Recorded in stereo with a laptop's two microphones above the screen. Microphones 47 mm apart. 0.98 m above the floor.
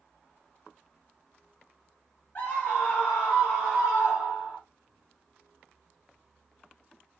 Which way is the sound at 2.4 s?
40° left (ahead or behind).